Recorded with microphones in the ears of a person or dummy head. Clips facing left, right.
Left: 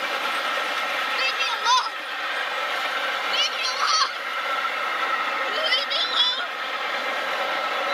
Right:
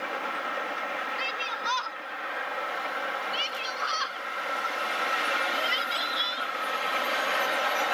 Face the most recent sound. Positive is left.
turn(degrees=65)  # may be behind; listen again after turning